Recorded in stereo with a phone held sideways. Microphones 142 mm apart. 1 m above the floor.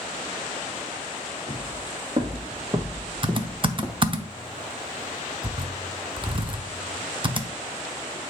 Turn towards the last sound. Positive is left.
turn(degrees=-35)  # may be behind; listen again after turning